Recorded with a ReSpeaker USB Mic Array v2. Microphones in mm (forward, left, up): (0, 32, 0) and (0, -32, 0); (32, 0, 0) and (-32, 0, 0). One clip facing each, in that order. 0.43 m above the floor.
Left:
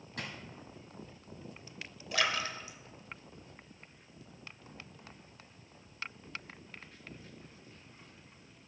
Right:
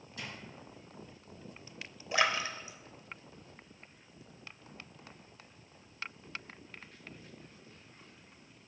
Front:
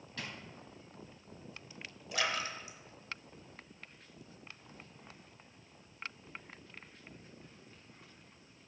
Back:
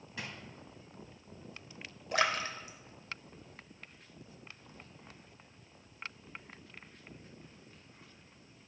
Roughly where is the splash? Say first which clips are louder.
Right 2 dB, back 4 dB; behind right.